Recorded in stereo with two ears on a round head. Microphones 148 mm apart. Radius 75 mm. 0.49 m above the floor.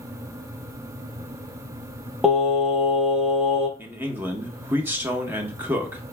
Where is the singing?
5° right (ahead or behind), 0.7 m.